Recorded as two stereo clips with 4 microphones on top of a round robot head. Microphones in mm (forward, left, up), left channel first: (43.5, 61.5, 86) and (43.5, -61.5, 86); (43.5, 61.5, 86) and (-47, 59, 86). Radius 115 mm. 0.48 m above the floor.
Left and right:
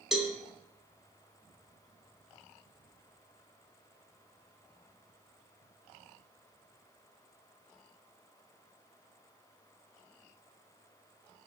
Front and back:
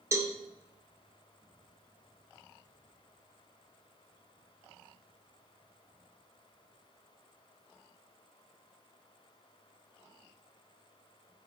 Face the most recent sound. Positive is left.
turn(degrees=-175)